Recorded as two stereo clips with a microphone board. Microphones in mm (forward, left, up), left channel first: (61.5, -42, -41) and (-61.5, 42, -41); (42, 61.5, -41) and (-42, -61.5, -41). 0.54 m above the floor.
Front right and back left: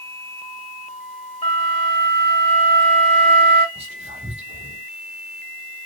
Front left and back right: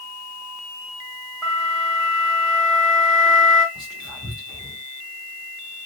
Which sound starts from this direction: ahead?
A flute, at 1.4 s.